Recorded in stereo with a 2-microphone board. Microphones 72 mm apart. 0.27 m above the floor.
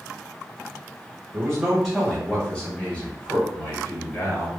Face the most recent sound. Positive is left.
turn(degrees=40)  # may be behind; listen again after turning